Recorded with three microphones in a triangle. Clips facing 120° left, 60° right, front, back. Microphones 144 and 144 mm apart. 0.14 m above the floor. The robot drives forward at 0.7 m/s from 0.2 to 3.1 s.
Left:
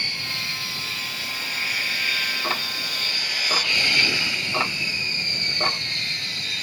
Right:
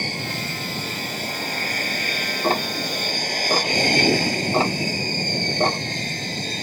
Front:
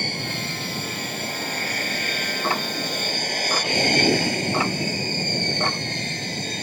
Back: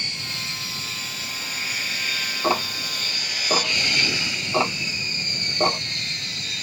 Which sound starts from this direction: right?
Ticking, at 2.4 s.